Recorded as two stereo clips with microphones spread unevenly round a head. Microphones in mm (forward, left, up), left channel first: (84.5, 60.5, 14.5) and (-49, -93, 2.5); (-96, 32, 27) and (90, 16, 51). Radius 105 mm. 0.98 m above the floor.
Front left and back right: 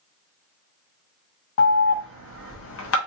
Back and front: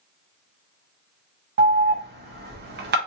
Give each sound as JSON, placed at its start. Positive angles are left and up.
{"t": 1.6, "sound": "an alarm", "azimuth_deg": 30, "distance_m": 0.6}